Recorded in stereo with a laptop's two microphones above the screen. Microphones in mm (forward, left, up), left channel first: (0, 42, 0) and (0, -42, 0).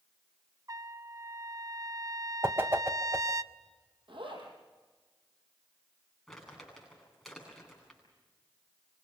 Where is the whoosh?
30° right (ahead or behind), 1.1 m.